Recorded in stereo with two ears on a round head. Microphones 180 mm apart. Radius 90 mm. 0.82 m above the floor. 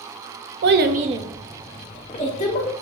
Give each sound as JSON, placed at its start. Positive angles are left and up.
{"t": 0.6, "sound": "a child speaking", "side_deg": -60, "distance_m": 0.7}